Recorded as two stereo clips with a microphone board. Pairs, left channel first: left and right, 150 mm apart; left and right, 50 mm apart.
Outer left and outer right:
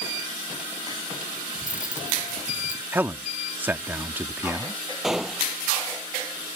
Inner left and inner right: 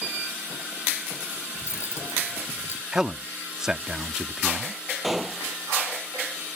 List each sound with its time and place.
1.6 s cutlery clinking: 60° left (ahead or behind)
2.9 s a man speaking: 10° right (ahead or behind)
5.0 s a gunshot: 5° right (ahead or behind)